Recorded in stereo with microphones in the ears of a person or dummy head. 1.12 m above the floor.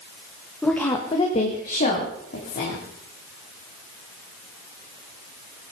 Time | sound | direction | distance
0.6 | a woman speaking | centre (ahead or behind) | 1.4 m